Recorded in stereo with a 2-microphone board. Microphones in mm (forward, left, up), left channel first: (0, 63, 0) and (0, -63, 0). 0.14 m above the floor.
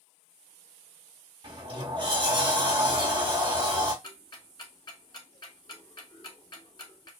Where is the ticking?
40° left (ahead or behind), 0.8 m.